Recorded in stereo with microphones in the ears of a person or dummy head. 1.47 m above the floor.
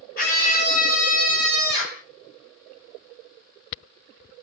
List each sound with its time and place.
0.2 s a scream: 45° left (ahead or behind), 6.5 m